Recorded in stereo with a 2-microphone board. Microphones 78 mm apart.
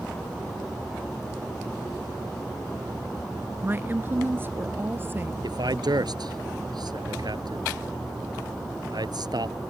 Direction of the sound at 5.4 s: 65° right (ahead or behind).